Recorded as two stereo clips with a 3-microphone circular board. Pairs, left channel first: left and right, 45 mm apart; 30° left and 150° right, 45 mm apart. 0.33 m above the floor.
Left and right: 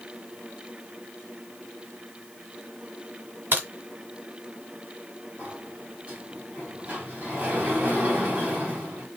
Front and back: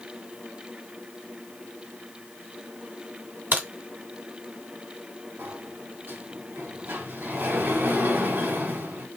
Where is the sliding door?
145° right, 2.5 m.